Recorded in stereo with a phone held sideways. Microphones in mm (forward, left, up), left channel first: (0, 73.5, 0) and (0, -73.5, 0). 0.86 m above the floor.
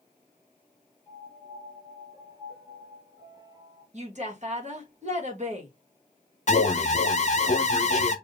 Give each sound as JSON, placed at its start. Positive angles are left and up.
{"t": 1.1, "sound": "a piano", "side_deg": 30, "distance_m": 3.0}
{"t": 3.9, "sound": "a woman speaking", "side_deg": -50, "distance_m": 1.4}
{"t": 6.5, "sound": "an alarm", "side_deg": 50, "distance_m": 0.6}